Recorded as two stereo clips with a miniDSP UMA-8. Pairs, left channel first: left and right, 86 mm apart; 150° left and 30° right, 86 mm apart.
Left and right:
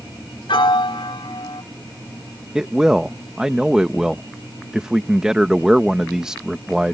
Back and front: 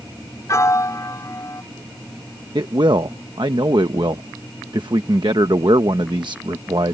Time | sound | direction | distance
0.5 | a piano | 100° left | ?
2.5 | a man speaking | 10° right | ?